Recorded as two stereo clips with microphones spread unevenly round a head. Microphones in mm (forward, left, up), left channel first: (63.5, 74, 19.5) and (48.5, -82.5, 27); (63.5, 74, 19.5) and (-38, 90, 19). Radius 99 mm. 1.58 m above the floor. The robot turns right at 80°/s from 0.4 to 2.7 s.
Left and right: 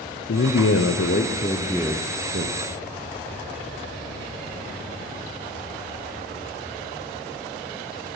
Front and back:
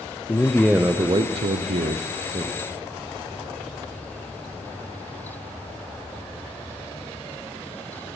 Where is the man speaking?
65° left, 0.6 m; by 2.6 s 120° right, 0.6 m.